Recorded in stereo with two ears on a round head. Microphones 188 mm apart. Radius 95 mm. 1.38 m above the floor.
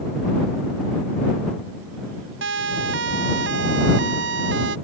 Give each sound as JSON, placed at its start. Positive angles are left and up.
{"t": 2.4, "sound": "a siren", "side_deg": -55}